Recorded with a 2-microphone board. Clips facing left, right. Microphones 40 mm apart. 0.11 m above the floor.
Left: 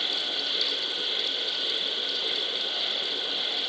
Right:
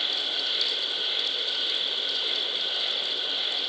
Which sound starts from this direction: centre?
An insect, at 0.0 s.